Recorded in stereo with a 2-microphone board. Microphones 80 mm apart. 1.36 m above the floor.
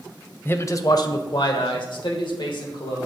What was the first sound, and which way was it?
A man speaking, 25° left (ahead or behind).